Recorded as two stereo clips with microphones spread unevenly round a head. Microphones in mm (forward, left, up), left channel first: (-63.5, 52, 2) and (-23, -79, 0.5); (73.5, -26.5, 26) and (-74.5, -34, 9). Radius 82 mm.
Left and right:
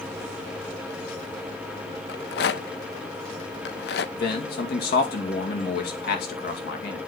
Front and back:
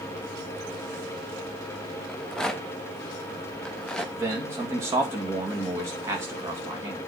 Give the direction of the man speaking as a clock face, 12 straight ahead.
8 o'clock.